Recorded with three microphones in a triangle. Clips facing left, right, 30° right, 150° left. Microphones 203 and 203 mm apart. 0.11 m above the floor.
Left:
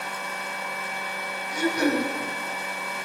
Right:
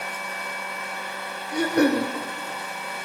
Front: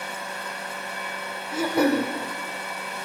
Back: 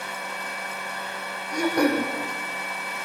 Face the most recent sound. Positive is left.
turn(degrees=-115)